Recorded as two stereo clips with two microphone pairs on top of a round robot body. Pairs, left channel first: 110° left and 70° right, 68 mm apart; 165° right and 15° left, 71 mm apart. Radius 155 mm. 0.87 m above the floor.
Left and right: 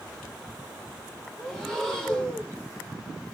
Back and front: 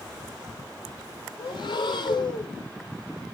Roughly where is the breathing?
Behind.